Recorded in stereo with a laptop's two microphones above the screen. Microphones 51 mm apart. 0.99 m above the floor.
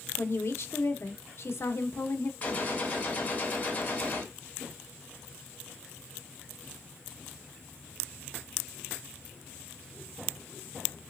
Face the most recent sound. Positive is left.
turn(degrees=30)  # may be behind; listen again after turning